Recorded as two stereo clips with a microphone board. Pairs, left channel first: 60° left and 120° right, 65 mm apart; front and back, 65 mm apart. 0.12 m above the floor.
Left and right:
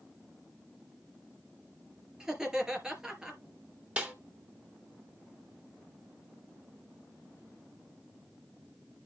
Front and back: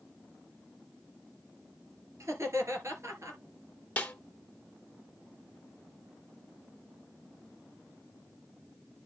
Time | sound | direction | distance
2.2 | laughter | 165° left | 2.5 m
4.0 | a snare drum | 55° right | 1.7 m